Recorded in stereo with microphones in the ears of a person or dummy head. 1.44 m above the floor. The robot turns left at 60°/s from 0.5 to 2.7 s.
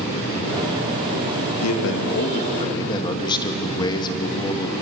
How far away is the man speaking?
About 2.5 m.